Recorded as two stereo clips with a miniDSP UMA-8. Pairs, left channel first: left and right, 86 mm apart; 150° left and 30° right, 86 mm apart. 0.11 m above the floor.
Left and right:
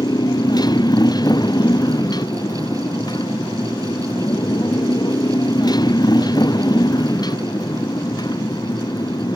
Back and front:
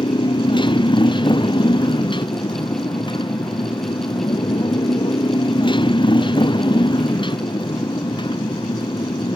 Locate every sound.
0.0 s a motorcycle: 130° left